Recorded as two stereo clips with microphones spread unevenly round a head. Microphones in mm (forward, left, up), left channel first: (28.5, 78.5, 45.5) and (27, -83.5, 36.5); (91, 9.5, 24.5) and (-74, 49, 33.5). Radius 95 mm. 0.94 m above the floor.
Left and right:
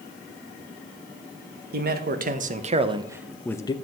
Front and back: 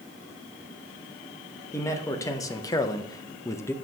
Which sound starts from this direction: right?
A man speaking, at 1.7 s.